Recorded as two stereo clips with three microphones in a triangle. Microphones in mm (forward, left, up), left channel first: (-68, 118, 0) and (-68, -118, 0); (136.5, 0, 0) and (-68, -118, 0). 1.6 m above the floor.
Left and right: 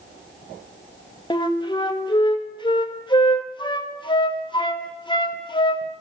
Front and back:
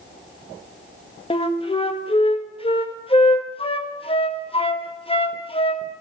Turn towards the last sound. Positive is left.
turn(degrees=50)